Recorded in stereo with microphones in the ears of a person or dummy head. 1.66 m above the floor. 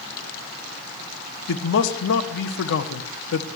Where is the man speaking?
65° left (ahead or behind), 1.1 m.